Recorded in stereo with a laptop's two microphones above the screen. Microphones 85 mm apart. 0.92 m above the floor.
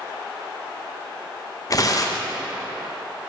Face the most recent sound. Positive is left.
turn(degrees=40)  # may be behind; listen again after turning